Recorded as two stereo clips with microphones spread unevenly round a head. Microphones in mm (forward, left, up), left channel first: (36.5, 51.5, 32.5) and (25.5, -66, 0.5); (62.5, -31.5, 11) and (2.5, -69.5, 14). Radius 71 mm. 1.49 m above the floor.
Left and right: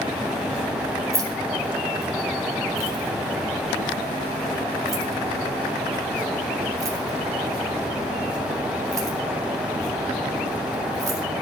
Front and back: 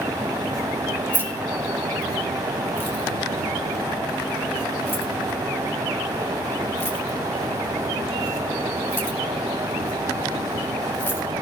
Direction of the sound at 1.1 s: 30° right.